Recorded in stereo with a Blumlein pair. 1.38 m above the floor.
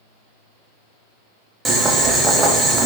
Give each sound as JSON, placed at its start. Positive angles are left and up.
{"t": 1.6, "sound": "boiling", "azimuth_deg": -15, "distance_m": 0.6}